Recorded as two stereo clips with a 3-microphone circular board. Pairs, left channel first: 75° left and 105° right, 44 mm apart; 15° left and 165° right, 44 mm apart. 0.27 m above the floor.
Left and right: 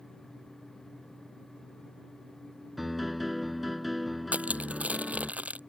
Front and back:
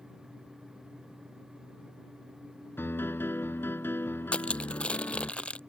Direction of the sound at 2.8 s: 20° right.